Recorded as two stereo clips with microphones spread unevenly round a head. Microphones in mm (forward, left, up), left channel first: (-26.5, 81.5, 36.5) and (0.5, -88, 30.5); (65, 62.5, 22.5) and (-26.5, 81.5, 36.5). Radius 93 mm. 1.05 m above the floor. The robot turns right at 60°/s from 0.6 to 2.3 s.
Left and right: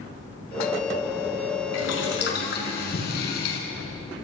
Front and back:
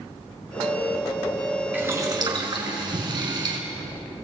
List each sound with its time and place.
1.7 s boiling: 100° left, 5 m; by 3.6 s 130° left, 5 m